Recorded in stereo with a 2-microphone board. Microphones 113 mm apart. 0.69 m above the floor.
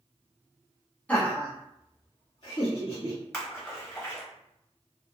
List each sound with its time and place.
1.1 s laughter: 10° left (ahead or behind), 1.0 m; by 3.2 s 55° left (ahead or behind), 1.7 m
3.3 s a splash: 20° left (ahead or behind), 1.2 m